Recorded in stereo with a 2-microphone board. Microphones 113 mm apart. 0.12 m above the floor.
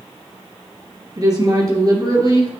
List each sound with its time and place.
1.2 s a woman speaking: 35° right (ahead or behind), 1.9 m